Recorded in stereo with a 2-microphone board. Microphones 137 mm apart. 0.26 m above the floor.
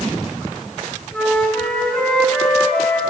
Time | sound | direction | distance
1.1 | a flute | 5° left (ahead or behind) | 1.3 m